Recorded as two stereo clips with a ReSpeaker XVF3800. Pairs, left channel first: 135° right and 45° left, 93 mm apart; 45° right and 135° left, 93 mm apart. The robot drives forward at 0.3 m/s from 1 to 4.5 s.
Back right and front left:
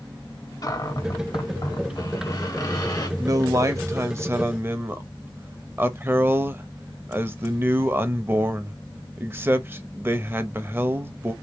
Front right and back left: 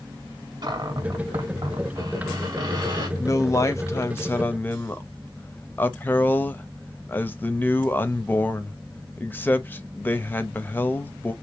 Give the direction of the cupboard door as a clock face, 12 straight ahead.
6 o'clock.